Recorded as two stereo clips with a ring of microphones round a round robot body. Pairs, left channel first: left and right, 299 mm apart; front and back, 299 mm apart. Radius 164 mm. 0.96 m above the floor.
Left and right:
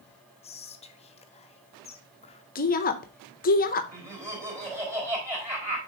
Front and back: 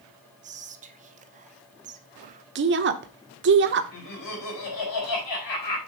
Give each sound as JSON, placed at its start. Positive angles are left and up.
{"t": 0.4, "sound": "whispering", "azimuth_deg": 140, "distance_m": 0.6}
{"t": 2.5, "sound": "a woman speaking", "azimuth_deg": 140, "distance_m": 0.7}
{"t": 3.9, "sound": "laughter", "azimuth_deg": -10, "distance_m": 4.0}